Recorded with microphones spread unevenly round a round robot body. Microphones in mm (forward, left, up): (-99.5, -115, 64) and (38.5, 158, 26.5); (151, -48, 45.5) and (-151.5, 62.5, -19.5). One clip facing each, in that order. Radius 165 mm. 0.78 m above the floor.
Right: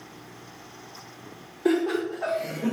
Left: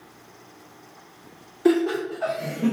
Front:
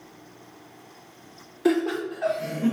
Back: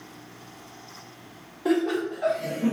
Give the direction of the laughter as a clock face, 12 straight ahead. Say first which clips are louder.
Left 3 dB, front 1 dB; 11 o'clock.